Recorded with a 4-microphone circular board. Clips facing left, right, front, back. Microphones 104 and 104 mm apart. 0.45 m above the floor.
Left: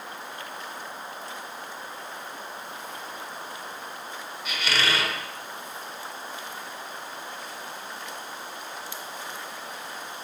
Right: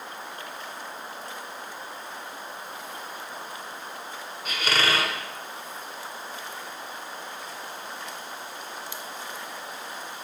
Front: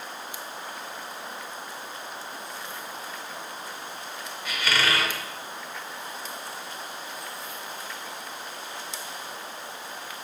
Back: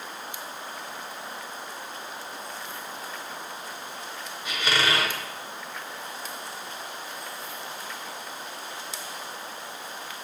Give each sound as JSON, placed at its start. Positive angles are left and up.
{"t": 4.5, "sound": "a squeak", "azimuth_deg": -120, "distance_m": 0.9}